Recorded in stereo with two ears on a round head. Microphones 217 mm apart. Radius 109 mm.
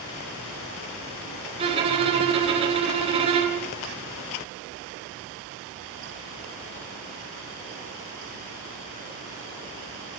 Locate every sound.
1.6 s a violin: 25° right (ahead or behind), 4.5 m